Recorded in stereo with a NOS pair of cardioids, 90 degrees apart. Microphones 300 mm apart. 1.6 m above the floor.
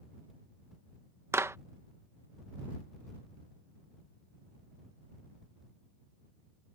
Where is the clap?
10° right.